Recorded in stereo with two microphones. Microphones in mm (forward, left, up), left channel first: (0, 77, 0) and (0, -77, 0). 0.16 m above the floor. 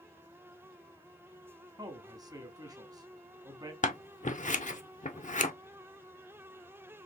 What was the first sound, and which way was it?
A man speaking, 25° right (ahead or behind).